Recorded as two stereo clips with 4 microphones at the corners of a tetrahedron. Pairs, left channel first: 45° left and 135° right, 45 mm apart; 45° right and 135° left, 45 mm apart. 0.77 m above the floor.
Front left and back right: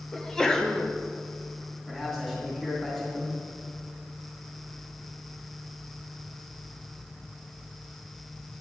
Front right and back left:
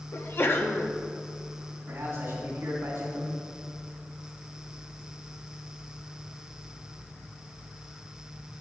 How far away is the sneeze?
About 0.9 m.